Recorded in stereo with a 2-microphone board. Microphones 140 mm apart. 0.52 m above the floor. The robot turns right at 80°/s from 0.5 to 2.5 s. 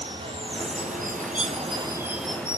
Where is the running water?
140° right, 2 m; by 2.6 s 20° left, 2 m.